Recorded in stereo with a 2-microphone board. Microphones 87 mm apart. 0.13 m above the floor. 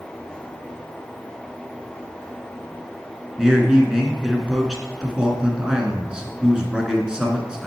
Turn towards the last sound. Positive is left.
turn(degrees=-10)  # may be behind; listen again after turning